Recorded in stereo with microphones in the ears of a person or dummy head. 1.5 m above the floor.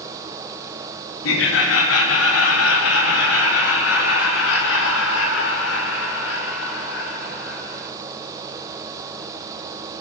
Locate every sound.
1.2 s laughter: 80° left, 1.9 m